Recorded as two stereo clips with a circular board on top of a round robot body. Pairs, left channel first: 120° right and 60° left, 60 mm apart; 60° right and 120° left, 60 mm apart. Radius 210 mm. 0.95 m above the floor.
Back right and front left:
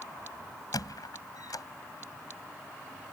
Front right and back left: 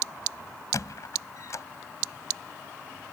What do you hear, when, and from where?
0.7 s a squeak: 95° right